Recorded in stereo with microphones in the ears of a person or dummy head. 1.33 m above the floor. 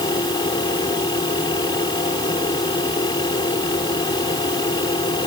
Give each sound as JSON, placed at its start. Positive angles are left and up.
{"t": 0.0, "sound": "a fan", "side_deg": 30}